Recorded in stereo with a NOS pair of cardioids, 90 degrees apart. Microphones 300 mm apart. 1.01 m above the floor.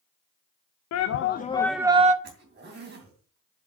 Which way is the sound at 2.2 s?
35° right.